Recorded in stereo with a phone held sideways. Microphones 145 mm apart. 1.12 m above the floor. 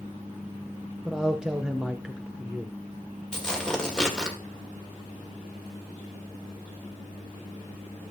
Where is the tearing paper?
5° left (ahead or behind), 2 m.